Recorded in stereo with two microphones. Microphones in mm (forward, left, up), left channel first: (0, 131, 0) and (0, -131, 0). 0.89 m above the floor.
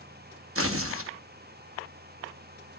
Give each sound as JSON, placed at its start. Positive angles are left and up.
{"t": 0.6, "sound": "tearing paper", "side_deg": -55, "distance_m": 0.8}